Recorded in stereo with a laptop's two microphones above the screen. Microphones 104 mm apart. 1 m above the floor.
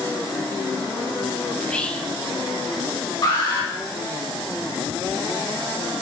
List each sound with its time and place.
1.6 s whispering: 10° left (ahead or behind), 0.6 m
3.2 s an alarm: 50° left (ahead or behind), 3 m